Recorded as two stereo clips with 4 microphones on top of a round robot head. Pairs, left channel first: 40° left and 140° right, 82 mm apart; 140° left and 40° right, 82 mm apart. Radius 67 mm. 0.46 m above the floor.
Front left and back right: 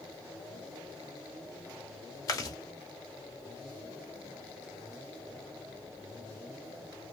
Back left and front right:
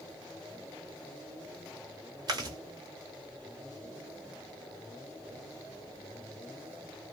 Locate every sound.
2.3 s chewing: 5° right, 1.0 m